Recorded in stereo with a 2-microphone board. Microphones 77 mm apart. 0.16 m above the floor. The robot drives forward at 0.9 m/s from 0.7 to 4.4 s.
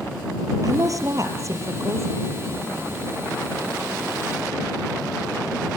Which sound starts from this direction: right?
A woman speaking, at 0.6 s.